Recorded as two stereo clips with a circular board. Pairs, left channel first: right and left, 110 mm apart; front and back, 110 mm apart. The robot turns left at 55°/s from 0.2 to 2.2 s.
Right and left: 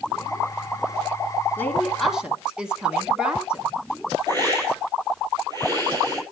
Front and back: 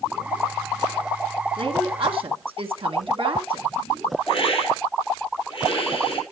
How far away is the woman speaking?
About 1.9 m.